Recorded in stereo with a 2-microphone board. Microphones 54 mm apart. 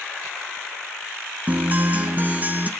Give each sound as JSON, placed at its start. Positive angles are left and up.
{"t": 1.5, "sound": "a guitar", "side_deg": -30, "distance_m": 1.0}